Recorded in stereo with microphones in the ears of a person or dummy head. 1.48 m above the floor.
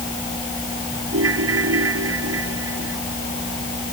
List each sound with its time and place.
1.1 s a ringtone: 80° right